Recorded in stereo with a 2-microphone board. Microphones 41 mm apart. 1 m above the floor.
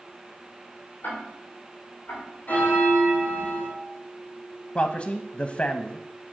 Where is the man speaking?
35° left (ahead or behind), 0.6 m.